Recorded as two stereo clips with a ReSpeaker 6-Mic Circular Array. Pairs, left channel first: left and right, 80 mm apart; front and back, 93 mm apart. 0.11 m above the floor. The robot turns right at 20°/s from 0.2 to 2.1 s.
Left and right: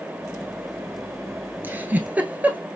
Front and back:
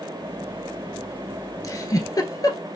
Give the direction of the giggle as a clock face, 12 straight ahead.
1 o'clock.